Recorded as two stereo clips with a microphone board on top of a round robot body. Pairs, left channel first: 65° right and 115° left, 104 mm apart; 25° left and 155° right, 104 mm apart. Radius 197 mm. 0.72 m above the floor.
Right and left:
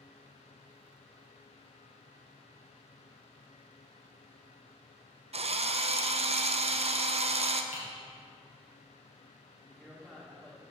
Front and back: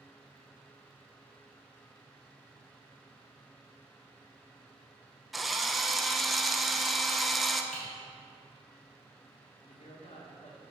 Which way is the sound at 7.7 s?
65° right.